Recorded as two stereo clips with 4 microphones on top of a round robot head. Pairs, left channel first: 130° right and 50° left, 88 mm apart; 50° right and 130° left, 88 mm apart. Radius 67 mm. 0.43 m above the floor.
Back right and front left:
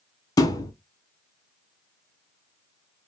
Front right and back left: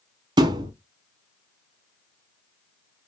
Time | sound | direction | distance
0.4 | a thud | 175° left | 0.7 m